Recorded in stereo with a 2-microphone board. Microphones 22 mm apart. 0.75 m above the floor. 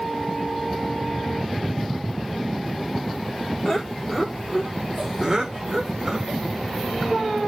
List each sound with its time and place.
3.6 s laughter: 20° left (ahead or behind), 2 m; by 6.4 s 25° right (ahead or behind), 3.5 m